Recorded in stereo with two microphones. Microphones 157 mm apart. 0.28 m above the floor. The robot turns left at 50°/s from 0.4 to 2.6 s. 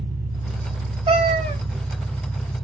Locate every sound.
0.0 s an engine running: 75° right, 1.0 m; by 2.6 s 175° left, 1.0 m
1.1 s a cat meowing: 35° right (ahead or behind), 0.8 m; by 1.6 s 45° right (ahead or behind), 0.8 m